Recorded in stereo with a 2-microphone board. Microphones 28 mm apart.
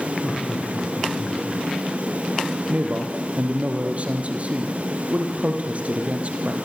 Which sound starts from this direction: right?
A man speaking, at 2.7 s.